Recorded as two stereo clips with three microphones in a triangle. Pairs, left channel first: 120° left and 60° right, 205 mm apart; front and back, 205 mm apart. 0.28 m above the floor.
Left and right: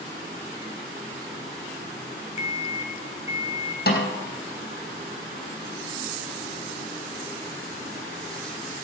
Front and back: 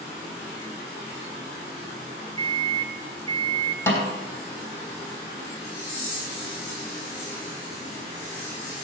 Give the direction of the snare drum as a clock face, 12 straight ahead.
9 o'clock.